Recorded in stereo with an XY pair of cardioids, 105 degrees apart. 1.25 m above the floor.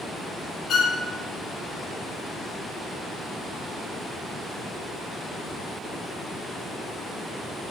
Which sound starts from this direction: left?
A violin, at 0.7 s.